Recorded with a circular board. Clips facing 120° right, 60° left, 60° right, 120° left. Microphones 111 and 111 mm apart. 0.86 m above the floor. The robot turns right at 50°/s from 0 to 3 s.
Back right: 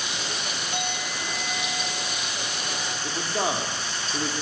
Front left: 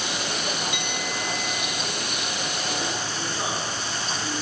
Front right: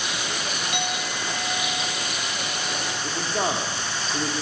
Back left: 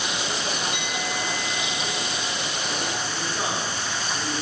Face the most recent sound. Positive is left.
turn(degrees=-95)